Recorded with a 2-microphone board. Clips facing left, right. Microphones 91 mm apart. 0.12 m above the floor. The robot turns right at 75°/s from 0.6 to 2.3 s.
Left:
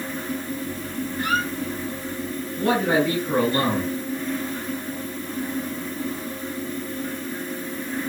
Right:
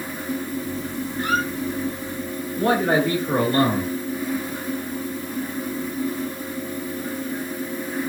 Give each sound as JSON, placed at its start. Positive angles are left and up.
{"t": 1.2, "sound": "a squeak", "side_deg": -30, "distance_m": 1.5}
{"t": 2.6, "sound": "a man speaking", "side_deg": -35, "distance_m": 1.8}